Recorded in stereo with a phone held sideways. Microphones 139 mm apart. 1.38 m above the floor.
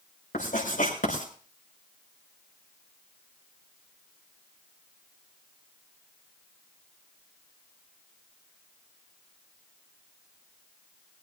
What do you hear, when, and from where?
0.3 s writing: 80° left, 6.5 m